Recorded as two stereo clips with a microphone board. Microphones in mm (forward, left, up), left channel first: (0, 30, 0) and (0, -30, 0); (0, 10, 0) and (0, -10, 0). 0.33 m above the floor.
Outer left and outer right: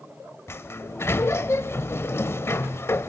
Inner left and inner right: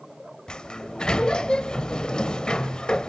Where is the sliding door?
45° left (ahead or behind), 0.9 m.